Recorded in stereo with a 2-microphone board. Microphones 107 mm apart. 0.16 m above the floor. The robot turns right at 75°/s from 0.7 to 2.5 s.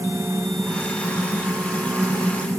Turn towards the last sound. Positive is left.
No sound to turn to.